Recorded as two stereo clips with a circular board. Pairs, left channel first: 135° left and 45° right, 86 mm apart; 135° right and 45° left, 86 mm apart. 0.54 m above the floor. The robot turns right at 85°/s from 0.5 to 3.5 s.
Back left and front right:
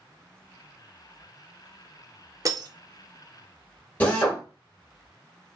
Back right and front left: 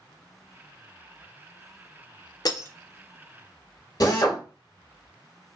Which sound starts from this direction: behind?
A drill, at 4.0 s.